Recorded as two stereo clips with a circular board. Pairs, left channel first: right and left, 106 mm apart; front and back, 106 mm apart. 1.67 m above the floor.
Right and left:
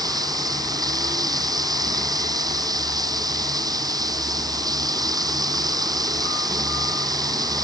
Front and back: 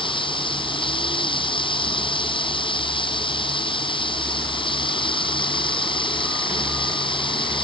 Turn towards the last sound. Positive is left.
turn(degrees=40)